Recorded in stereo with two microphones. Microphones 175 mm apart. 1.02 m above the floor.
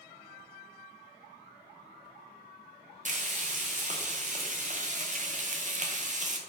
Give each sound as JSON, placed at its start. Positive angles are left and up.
{"t": 3.0, "sound": "frying", "side_deg": -45, "distance_m": 0.6}